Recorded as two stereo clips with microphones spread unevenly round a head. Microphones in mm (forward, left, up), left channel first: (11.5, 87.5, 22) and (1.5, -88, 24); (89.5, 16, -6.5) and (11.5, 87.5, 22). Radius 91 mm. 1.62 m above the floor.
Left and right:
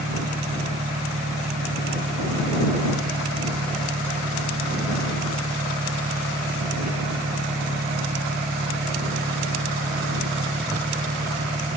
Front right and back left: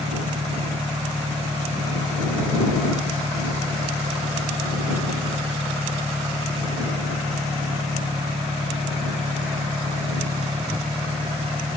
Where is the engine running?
155° right.